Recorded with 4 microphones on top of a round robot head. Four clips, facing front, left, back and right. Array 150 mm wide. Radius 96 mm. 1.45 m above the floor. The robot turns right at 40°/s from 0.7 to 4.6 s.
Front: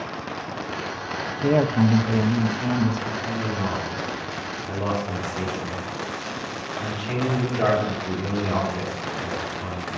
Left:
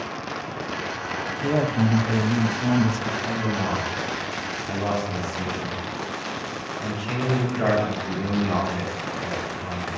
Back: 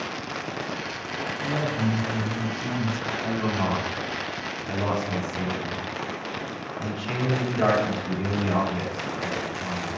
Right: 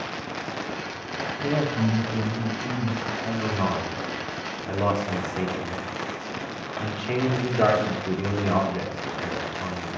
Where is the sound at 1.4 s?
5° left, 0.9 m; by 3.1 s 75° left, 0.9 m.